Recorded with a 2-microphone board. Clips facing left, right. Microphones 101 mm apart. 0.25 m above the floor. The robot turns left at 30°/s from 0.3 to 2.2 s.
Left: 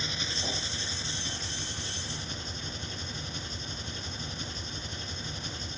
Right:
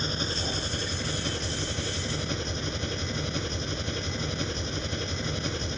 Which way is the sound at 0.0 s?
40° right.